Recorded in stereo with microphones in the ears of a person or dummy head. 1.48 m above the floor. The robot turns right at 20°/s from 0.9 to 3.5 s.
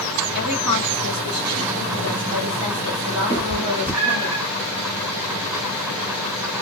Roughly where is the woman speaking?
Ahead right.